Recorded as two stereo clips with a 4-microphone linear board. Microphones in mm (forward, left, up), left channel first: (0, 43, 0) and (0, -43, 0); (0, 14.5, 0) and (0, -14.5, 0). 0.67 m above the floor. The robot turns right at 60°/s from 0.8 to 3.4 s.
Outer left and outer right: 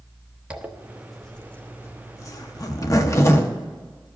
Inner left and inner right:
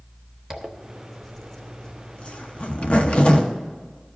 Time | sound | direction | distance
0.5 | a zipper | 15° right (ahead or behind) | 0.9 m